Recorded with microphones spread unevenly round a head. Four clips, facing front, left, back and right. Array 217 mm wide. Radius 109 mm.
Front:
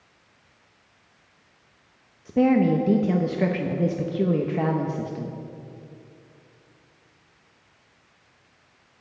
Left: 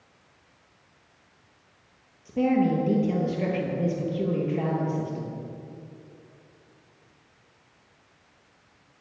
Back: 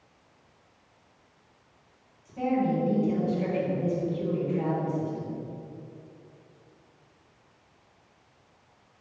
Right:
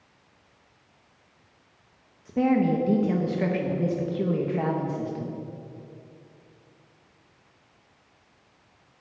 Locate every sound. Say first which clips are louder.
2.2 s a woman speaking: right 1 dB, front 7 dB; 10° right, 1.2 m